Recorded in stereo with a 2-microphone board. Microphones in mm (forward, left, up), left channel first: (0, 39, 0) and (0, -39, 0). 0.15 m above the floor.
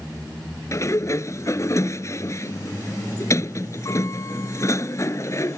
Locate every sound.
0.7 s a sliding door: 40° left (ahead or behind)